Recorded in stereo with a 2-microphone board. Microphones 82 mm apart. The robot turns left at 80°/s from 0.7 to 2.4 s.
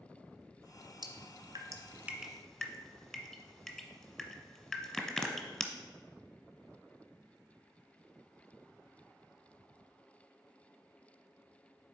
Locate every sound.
1.0 s dripping: 65° right (ahead or behind), 1.1 m; by 5.7 s 10° left (ahead or behind), 1.1 m